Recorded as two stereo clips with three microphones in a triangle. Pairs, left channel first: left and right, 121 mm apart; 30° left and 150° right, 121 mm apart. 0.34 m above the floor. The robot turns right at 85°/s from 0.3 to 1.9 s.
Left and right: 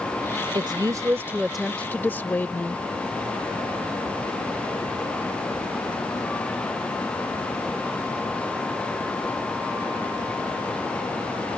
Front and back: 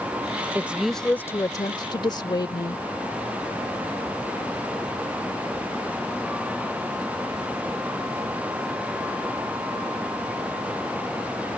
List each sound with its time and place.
0.6 s a woman speaking: 90° right; by 2.8 s 25° left